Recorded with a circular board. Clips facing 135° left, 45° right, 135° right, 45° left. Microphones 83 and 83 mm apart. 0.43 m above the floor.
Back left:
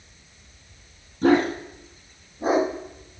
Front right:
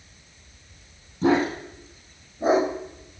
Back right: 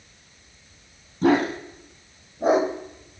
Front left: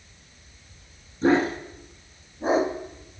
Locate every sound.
1.2 s a dog barking: 120° right, 3.5 m; by 3.2 s 105° right, 4.5 m